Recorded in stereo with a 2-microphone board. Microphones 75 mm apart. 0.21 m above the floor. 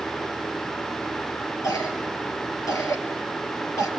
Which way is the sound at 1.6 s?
45° left (ahead or behind).